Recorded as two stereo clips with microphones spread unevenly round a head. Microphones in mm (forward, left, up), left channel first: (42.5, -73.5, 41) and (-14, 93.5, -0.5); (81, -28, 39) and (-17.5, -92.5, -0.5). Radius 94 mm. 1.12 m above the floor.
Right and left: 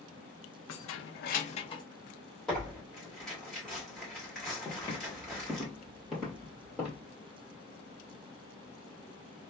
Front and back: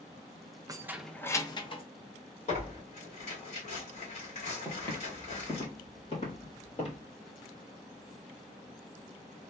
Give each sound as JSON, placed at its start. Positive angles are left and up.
{"t": 0.7, "sound": "keys jangling", "azimuth_deg": -85, "distance_m": 0.6}
{"t": 2.5, "sound": "tearing paper", "azimuth_deg": 15, "distance_m": 2.0}
{"t": 4.7, "sound": "footsteps", "azimuth_deg": -20, "distance_m": 1.7}